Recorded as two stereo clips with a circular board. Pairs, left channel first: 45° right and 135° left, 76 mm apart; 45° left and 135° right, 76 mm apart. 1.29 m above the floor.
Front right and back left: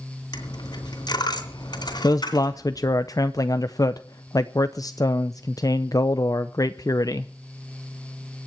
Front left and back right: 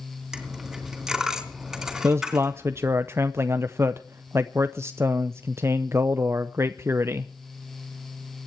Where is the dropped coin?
50° right, 3 m.